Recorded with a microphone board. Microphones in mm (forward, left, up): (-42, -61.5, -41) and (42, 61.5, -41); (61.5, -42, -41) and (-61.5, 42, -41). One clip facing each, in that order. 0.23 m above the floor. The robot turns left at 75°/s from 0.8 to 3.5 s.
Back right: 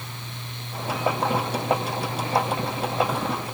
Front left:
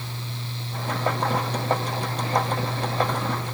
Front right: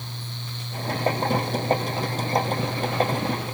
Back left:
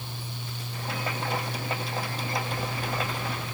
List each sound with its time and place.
Only background noise.